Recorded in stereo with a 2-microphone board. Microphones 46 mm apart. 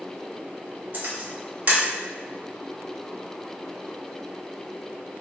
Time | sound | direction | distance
0.9 | a camera shutter | 45° right (ahead or behind) | 1.0 m